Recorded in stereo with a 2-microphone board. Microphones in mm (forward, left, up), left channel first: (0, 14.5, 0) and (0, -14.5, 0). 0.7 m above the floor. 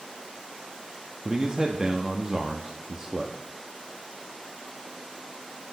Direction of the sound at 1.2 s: 20° right (ahead or behind).